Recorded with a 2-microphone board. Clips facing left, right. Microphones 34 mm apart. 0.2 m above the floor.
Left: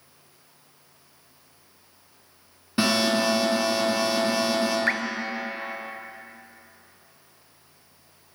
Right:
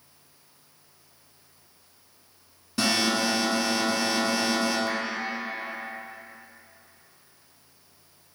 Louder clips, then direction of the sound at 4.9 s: Left 5 dB; 70° left (ahead or behind).